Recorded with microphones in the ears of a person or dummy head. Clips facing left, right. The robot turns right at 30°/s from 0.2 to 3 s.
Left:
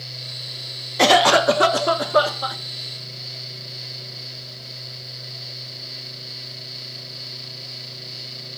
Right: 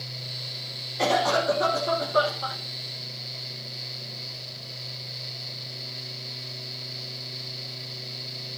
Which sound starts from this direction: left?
A cough, at 1.0 s.